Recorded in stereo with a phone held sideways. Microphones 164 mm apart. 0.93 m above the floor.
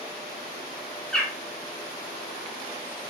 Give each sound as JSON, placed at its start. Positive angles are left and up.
{"t": 1.1, "sound": "a bird", "side_deg": 5, "distance_m": 2.5}